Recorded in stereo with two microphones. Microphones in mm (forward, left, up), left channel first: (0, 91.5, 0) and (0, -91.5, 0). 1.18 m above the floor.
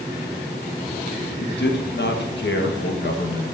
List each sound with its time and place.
1.4 s a man speaking: 75° left (ahead or behind), 1.3 m